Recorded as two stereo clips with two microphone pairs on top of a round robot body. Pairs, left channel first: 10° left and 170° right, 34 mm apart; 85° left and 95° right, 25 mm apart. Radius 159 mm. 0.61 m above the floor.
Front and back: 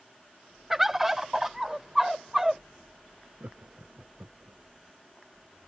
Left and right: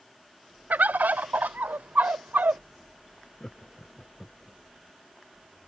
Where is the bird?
85° right.